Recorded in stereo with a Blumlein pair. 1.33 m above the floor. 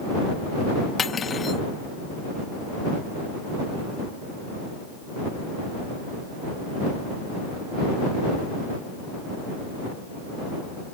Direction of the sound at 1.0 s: 20° left.